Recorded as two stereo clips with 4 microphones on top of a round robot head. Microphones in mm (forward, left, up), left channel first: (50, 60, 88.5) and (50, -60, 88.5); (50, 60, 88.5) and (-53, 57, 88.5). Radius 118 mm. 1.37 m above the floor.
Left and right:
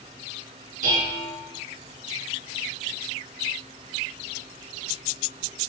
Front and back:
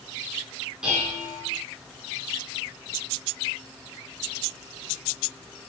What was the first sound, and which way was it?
Dishes clattering, 95° right.